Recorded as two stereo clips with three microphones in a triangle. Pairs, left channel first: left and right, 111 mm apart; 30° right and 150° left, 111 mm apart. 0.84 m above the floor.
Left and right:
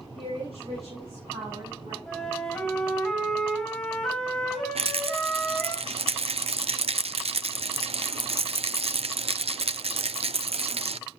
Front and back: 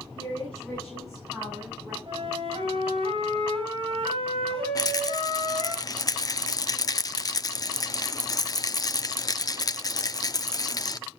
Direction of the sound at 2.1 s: Straight behind.